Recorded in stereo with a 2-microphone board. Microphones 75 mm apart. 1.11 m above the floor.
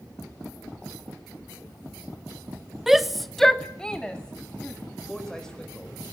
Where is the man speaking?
10° left (ahead or behind), 4.5 m.